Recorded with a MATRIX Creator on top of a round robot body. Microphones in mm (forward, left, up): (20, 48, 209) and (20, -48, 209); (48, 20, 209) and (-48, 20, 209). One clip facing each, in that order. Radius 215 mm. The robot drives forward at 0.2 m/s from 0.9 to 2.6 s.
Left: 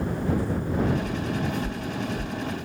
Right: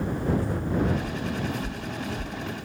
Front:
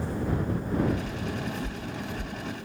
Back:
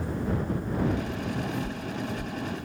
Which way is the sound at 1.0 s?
155° right.